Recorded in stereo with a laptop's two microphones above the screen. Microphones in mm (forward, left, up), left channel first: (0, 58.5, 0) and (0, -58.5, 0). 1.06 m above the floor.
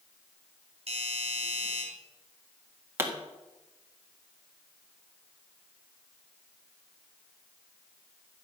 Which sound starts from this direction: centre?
A pop, at 3.0 s.